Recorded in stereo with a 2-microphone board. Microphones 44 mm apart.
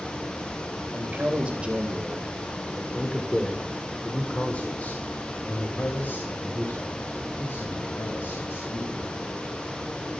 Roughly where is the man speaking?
Right.